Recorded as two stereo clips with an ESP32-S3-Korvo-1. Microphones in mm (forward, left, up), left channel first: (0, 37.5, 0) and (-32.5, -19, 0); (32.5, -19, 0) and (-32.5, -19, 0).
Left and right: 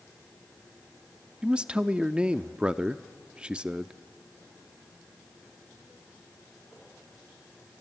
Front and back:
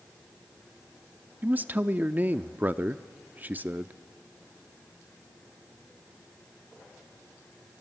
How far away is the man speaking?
About 0.6 m.